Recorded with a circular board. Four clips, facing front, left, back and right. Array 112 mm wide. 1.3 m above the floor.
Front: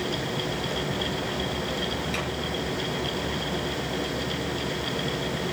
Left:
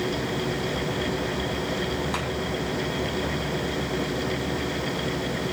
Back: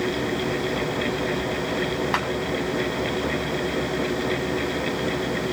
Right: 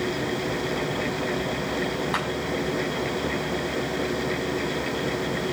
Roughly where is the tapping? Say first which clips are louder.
Right 2 dB, back 6 dB; behind.